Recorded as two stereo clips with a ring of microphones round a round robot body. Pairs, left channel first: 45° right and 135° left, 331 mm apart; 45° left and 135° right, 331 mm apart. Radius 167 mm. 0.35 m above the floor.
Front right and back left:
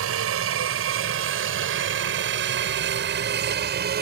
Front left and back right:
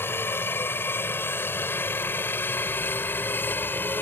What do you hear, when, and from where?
0.0 s a helicopter: 125° left